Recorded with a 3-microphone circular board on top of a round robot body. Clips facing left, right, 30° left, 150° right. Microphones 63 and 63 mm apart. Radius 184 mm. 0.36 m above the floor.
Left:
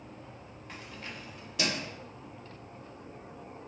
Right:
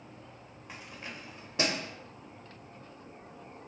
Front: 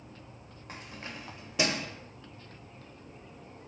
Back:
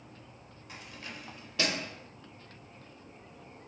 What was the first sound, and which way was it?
Keys jangling, 5° right.